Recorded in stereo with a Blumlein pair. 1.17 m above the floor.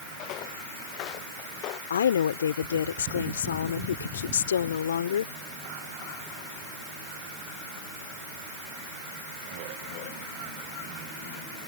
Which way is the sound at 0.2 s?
40° left.